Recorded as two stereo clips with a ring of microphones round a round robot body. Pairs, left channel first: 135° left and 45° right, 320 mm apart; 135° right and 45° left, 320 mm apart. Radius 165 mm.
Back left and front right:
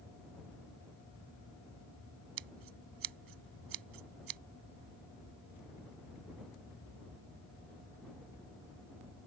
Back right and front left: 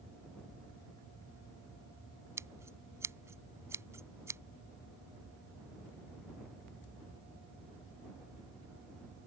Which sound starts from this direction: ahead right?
Scissors, at 2.4 s.